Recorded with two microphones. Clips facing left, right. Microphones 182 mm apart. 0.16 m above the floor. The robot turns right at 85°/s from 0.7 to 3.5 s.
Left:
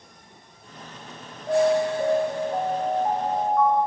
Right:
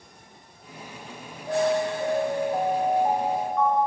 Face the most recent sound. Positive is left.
turn(degrees=-175)